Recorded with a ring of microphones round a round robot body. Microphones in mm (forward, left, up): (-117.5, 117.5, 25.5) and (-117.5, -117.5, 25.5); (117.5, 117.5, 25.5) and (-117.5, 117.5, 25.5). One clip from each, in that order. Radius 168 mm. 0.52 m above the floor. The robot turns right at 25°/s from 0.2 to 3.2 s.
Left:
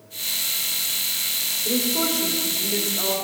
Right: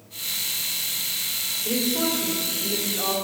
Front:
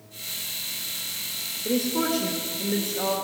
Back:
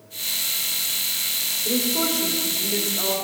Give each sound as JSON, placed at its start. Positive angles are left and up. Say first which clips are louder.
{"t": 1.6, "sound": "a woman speaking", "louder": "left 1 dB, even", "azimuth_deg": 25, "distance_m": 2.0}